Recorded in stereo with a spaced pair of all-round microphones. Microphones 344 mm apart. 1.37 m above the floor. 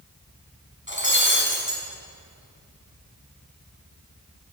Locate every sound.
0.9 s breaking glass: 35° left (ahead or behind), 6 m